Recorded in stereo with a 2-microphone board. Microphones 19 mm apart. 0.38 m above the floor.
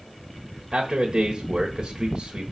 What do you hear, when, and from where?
0.7 s a man speaking: 45° right (ahead or behind), 1.2 m